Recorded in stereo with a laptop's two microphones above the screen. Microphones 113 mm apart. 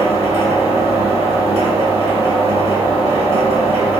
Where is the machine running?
60° right (ahead or behind), 1.2 m.